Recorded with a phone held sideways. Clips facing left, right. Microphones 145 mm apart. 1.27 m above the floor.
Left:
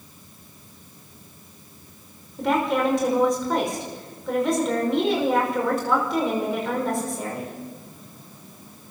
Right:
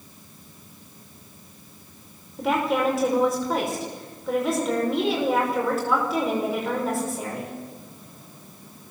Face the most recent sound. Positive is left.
turn(degrees=-5)  # may be behind; listen again after turning